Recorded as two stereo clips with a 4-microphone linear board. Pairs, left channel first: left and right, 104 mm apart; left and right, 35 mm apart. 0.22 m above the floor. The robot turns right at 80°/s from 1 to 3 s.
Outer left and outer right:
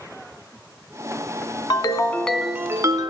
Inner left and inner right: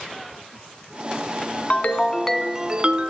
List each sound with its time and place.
1.7 s a ringtone: 125° left, 0.8 m; by 3.1 s 130° right, 0.8 m